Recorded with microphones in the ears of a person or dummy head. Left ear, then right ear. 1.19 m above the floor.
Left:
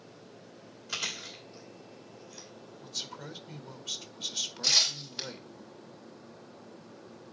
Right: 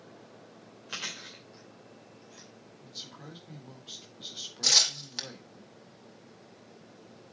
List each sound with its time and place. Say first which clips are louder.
0.9 s chewing: left 3 dB; centre (ahead or behind), 2.5 m
2.8 s a man speaking: left 6 dB; 30° left (ahead or behind), 1.3 m
4.6 s tearing paper: right 2 dB; 75° right (ahead or behind), 3 m